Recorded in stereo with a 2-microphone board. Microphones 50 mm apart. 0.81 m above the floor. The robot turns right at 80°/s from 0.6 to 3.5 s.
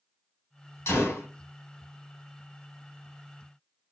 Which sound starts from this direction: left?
A gunshot, at 0.9 s.